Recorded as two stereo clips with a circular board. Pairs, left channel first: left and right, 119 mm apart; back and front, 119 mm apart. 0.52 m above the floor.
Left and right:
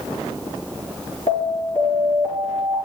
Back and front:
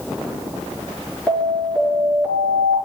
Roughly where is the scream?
No scream in this recording.